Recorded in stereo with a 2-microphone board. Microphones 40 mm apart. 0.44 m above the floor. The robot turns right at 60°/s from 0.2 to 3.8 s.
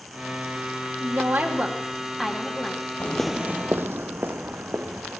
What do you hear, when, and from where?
1.0 s a woman speaking: 90° right, 3 m; by 2.9 s 25° left, 3 m
3.0 s footsteps: 40° left (ahead or behind), 0.6 m; by 5.2 s 55° right (ahead or behind), 2.5 m